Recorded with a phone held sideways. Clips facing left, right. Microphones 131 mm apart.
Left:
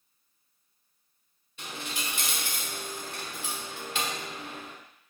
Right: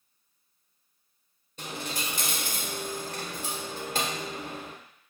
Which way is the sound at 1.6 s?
45° right (ahead or behind).